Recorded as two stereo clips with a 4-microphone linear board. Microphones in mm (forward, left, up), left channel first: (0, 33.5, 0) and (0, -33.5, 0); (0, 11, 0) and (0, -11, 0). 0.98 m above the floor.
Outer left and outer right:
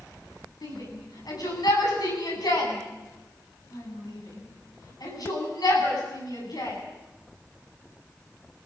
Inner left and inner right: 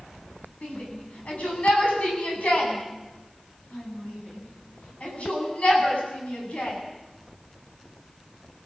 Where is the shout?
70° left (ahead or behind), 9.5 m.